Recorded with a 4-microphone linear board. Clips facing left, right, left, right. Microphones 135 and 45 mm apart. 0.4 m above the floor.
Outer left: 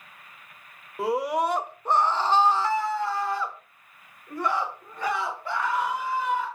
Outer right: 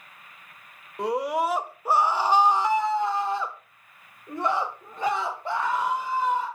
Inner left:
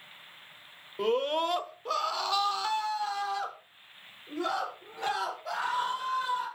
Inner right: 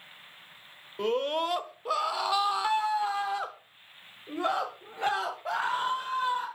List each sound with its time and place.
1.0 s a scream: 5° left (ahead or behind), 1.0 m; by 6.5 s 25° right (ahead or behind), 2.5 m